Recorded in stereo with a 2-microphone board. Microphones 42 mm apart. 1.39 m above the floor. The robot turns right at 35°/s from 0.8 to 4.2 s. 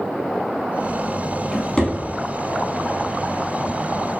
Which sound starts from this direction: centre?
A drawer, at 1.5 s.